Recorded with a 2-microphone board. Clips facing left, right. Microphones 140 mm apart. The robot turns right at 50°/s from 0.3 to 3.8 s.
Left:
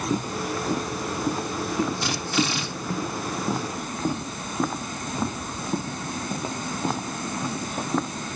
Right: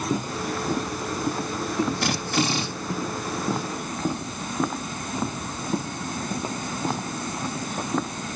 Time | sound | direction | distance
2.0 | a drill | 70° right | 2.5 m